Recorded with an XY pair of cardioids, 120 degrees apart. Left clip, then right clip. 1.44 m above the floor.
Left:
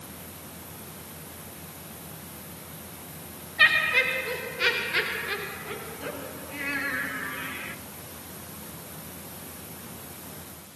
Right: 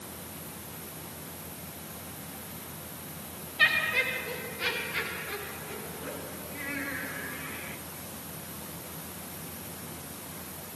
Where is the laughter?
30° left, 1.7 m; by 7.8 s 80° left, 3.5 m.